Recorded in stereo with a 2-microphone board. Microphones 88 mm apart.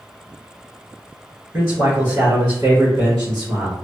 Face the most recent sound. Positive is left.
turn(degrees=-35)  # may be behind; listen again after turning